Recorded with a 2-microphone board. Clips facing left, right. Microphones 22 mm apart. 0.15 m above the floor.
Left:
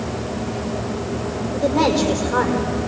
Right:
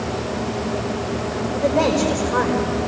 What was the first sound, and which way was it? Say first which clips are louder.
A woman speaking: left 1 dB; 70° left (ahead or behind).